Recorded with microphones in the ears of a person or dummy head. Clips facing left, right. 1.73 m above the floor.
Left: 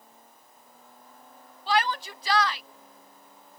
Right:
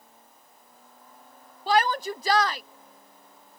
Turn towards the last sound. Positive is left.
turn(degrees=-35)  # may be behind; listen again after turning